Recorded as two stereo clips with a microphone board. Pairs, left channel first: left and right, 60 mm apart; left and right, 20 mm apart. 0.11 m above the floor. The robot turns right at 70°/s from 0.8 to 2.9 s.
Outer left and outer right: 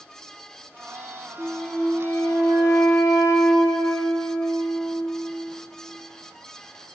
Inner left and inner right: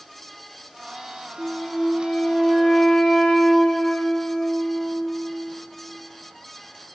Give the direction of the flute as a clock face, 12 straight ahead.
12 o'clock.